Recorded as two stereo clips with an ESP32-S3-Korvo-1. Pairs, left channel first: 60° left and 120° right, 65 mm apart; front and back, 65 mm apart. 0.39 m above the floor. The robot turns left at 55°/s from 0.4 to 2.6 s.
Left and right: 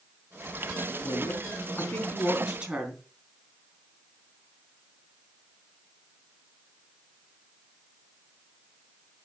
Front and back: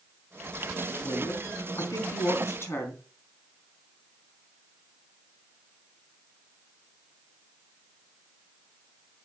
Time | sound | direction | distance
1.0 | a woman speaking | 40° left | 3.5 m